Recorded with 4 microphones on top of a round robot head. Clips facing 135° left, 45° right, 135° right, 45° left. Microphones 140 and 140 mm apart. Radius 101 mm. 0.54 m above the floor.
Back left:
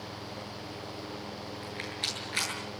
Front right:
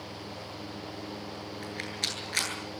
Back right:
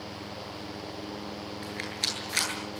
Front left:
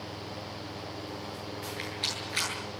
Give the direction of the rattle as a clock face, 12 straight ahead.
3 o'clock.